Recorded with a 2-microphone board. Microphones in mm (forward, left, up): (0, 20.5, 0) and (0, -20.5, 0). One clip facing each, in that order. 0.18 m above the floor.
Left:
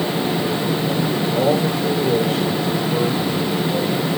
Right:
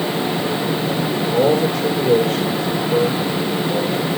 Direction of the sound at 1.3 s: 80° right.